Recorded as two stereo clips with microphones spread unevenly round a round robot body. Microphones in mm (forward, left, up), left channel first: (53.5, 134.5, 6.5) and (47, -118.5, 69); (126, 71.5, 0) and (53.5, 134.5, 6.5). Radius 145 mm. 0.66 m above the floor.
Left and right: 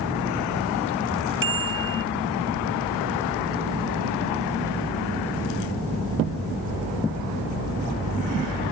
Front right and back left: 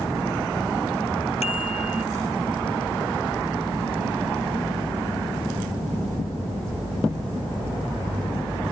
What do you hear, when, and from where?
1.4 s a bicycle bell: 50° right